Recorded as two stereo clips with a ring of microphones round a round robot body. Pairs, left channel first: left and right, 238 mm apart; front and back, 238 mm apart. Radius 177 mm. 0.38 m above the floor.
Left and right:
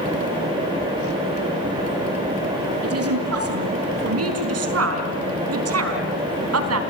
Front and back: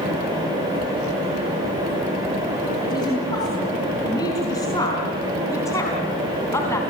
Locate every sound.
2.8 s a woman speaking: 75° right, 6 m; by 6.8 s 80° right, 4 m